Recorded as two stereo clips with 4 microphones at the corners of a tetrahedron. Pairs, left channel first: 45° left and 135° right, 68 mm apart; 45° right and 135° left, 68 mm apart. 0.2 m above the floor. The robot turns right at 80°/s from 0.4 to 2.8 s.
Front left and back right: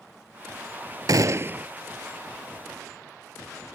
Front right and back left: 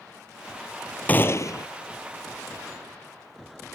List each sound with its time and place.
1.1 s a gunshot: 110° right; by 1.7 s 65° right